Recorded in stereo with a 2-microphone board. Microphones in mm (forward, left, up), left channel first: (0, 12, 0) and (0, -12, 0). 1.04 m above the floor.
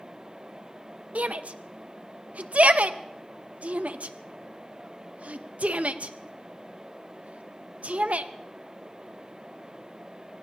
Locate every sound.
1.1 s a shout: 70° right (ahead or behind), 0.6 m